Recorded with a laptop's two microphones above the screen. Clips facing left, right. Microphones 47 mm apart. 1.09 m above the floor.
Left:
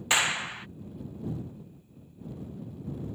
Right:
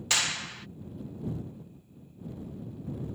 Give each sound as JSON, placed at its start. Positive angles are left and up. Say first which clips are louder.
{"t": 0.1, "sound": "a clap", "louder": "left 4 dB", "side_deg": 20}